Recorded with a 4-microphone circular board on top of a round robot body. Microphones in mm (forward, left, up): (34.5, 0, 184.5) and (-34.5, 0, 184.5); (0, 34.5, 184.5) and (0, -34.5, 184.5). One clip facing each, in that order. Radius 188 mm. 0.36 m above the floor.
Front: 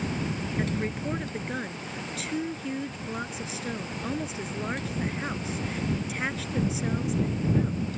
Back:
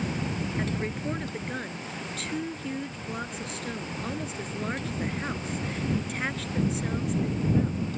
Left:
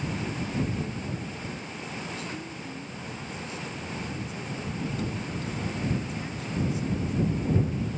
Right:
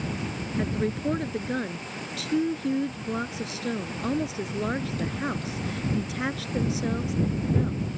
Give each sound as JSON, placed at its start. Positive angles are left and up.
{"t": 0.6, "sound": "a woman speaking", "azimuth_deg": -85}